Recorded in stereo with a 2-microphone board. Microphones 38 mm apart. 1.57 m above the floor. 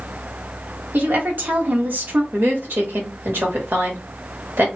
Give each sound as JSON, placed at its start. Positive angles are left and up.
{"t": 0.9, "sound": "a woman speaking", "side_deg": -65, "distance_m": 1.5}
{"t": 2.3, "sound": "a woman speaking", "side_deg": -80, "distance_m": 1.7}